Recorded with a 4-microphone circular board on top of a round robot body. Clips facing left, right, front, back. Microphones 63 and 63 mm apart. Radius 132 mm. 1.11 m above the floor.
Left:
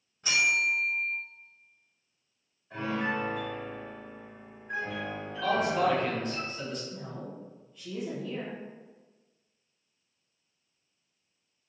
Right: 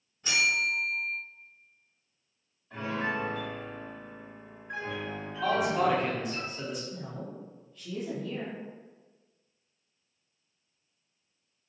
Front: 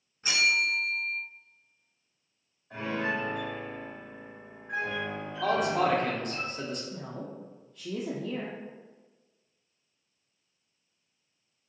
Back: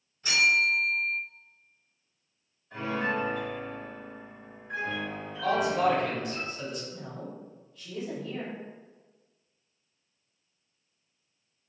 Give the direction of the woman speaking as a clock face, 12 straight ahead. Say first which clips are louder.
Even, front 1 dB; 12 o'clock.